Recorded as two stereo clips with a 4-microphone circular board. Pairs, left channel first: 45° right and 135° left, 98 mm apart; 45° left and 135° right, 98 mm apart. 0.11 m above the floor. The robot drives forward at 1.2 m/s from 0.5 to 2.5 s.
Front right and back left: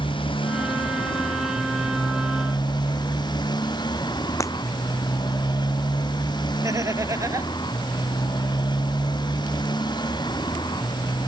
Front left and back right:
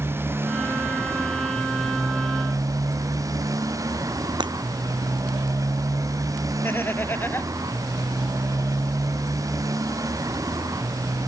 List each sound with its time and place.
0.0 s a motorcycle: 70° right; by 11.3 s 85° right
4.4 s breaking glass: 100° right
6.6 s laughter: 100° left